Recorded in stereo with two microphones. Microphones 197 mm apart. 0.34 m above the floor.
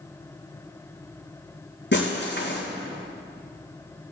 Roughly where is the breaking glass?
Left.